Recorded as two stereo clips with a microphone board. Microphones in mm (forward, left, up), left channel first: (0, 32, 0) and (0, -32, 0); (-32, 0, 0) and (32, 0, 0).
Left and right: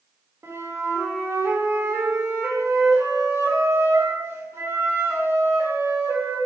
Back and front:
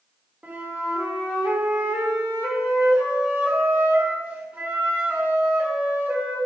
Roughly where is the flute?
Ahead right.